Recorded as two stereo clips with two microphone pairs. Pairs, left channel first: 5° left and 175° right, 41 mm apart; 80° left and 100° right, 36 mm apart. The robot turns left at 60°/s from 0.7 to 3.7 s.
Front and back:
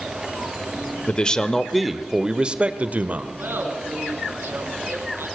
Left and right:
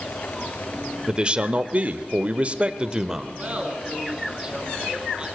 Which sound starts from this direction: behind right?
Laughter, at 3.4 s.